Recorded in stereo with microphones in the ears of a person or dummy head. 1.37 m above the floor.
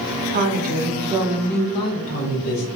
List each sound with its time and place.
0.3 s a woman speaking: 55° right (ahead or behind), 0.9 m; by 2.7 s 60° left (ahead or behind), 1.0 m